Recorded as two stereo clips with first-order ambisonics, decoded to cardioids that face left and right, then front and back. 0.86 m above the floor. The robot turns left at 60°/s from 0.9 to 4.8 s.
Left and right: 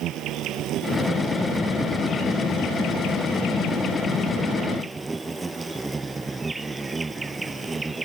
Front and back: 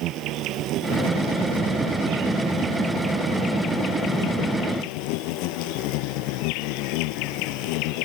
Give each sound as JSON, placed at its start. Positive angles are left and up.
{"t": 0.0, "sound": "an insect", "azimuth_deg": -135}